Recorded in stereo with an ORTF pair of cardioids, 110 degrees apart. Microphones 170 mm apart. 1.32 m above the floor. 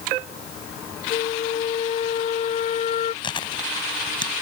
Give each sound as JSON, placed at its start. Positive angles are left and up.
{"t": 1.1, "sound": "a flute", "azimuth_deg": 45}
{"t": 3.2, "sound": "chewing", "azimuth_deg": 30}